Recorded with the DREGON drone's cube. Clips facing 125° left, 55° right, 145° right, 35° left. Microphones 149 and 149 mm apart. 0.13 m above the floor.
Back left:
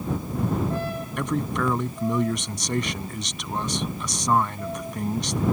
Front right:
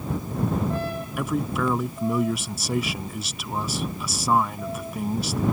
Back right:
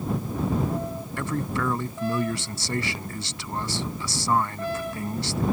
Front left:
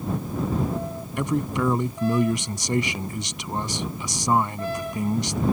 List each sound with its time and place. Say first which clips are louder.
1.2 s a man speaking: even, front left 4 dB; 15° left